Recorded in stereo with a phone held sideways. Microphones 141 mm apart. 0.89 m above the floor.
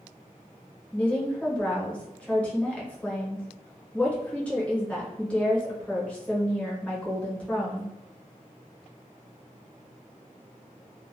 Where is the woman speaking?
10° left (ahead or behind), 0.9 m.